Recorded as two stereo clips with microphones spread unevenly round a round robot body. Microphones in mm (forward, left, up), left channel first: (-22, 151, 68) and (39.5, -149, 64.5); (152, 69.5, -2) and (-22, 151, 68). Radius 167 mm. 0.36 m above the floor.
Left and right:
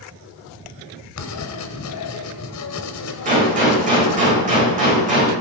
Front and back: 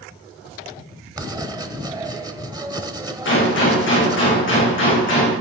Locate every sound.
1.2 s writing: 75° left, 1.8 m
3.2 s a gunshot: 10° right, 9 m